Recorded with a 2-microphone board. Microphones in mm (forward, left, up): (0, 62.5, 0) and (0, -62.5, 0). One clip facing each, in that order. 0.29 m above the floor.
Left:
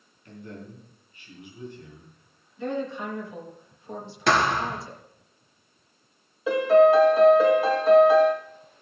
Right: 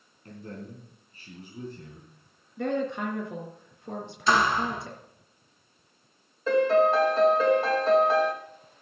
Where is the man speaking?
40° right (ahead or behind), 3.5 m.